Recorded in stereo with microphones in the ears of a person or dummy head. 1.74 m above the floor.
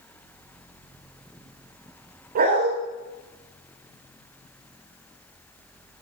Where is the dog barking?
50° right (ahead or behind), 3 m.